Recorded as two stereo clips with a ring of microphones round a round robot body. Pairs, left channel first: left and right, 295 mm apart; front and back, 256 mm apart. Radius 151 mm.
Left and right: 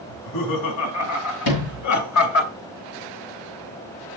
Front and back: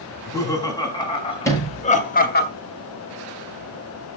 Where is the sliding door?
80° left, 7 m.